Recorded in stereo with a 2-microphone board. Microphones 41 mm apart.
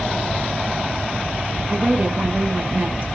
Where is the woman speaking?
40° right (ahead or behind), 3 m.